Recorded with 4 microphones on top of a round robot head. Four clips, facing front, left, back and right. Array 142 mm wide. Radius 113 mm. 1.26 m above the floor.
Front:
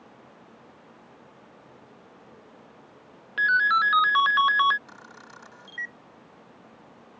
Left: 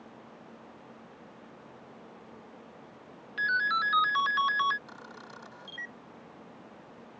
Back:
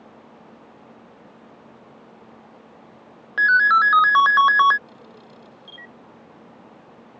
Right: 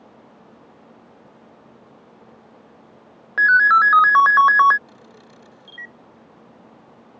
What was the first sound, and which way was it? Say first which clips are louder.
A ringtone: right 15 dB, back 6 dB; 115° right.